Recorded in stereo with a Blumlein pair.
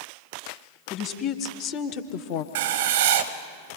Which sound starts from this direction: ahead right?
Writing, at 2.5 s.